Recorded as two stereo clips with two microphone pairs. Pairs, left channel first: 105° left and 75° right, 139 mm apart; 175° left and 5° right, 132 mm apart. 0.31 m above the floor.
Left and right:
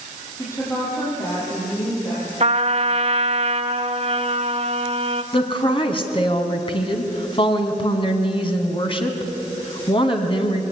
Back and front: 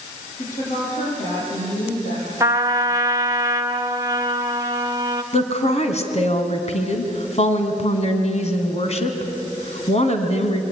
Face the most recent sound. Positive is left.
turn(degrees=150)